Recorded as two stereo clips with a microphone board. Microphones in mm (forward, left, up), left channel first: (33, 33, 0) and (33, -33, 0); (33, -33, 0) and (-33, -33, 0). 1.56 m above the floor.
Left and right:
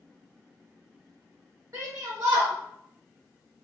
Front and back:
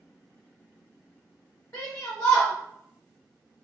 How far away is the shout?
About 0.7 m.